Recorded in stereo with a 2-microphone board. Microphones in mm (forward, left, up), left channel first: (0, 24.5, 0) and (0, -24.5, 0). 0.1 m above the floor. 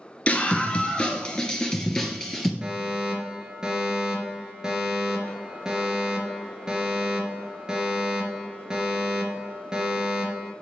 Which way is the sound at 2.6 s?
15° right (ahead or behind).